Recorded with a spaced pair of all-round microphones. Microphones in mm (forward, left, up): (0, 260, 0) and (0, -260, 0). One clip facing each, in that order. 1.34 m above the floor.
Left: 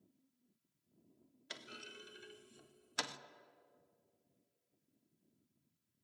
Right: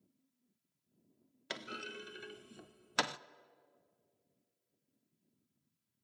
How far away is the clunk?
About 0.5 m.